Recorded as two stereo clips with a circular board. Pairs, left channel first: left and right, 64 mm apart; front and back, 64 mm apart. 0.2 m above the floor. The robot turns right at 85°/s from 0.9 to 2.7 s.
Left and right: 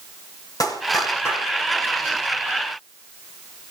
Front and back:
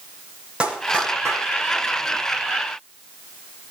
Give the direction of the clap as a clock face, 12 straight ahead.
8 o'clock.